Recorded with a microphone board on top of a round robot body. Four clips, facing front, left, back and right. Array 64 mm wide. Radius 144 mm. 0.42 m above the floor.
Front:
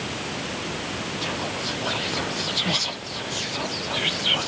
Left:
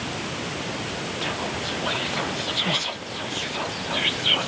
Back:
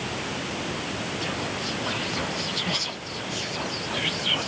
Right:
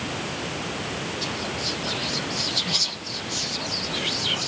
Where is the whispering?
70° left, 1.4 m.